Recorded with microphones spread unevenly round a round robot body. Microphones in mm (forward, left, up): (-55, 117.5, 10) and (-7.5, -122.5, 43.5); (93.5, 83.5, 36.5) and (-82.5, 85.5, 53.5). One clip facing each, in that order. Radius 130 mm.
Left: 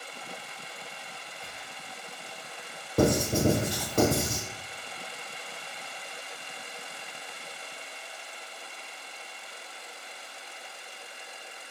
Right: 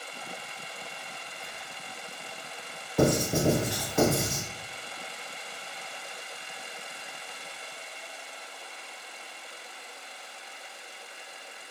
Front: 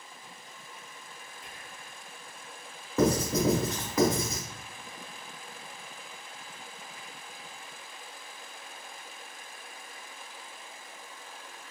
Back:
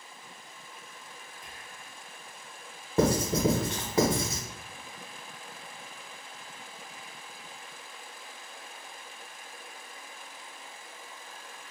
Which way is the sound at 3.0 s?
125° left.